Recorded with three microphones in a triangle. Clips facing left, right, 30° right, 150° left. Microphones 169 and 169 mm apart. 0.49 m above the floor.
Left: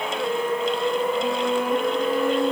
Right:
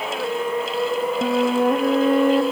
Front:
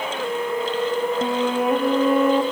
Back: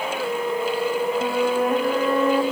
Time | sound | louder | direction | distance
1.2 | a flute | right 5 dB, even | 105° right | 0.8 m